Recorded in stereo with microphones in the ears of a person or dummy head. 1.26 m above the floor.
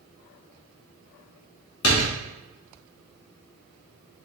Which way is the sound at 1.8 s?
90° left.